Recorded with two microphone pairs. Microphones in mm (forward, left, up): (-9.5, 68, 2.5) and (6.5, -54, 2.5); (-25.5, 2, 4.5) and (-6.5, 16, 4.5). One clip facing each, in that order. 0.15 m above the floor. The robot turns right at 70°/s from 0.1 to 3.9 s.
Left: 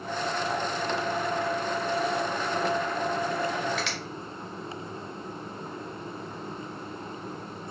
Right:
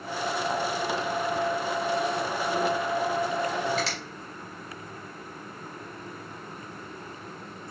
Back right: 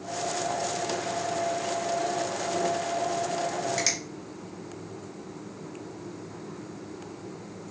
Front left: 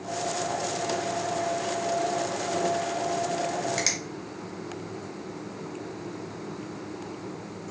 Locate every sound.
3.8 s a finger snap: 50° right, 1.7 m; by 4.0 s 40° right, 1.7 m